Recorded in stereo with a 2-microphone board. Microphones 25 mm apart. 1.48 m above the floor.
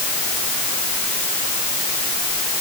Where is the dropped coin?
No dropped coin in this recording.